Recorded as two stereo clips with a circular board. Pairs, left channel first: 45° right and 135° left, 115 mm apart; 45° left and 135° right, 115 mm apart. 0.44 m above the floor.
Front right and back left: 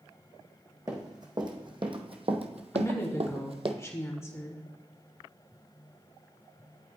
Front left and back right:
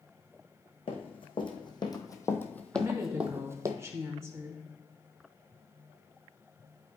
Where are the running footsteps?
80° left, 1.7 m; by 3.7 s 170° left, 1.0 m.